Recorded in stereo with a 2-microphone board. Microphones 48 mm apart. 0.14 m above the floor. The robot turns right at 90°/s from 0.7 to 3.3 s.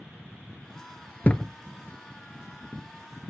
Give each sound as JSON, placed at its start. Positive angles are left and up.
{"t": 1.2, "sound": "a thud", "side_deg": 35, "distance_m": 0.5}